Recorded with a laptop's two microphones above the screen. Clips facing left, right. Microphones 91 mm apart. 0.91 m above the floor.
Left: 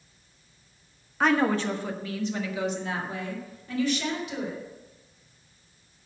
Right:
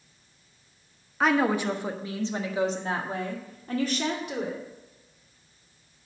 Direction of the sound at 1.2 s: Centre (ahead or behind).